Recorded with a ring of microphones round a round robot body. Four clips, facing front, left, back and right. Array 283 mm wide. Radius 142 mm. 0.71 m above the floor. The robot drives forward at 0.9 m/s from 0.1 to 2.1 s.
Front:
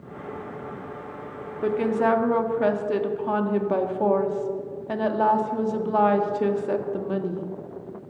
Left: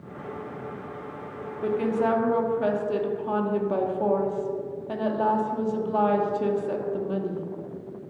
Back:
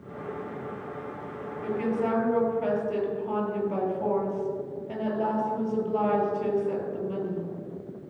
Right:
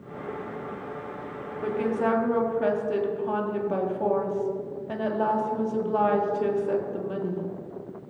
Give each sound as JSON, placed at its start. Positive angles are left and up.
{"t": 1.6, "sound": "a woman speaking", "azimuth_deg": 0, "distance_m": 2.0}